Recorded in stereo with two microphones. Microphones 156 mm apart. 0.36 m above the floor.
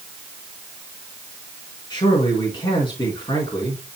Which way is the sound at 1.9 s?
30° left (ahead or behind).